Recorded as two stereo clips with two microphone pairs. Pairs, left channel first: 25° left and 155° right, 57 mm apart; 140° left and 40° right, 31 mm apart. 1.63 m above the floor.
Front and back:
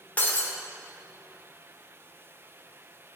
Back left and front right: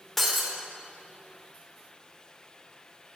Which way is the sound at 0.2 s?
60° left.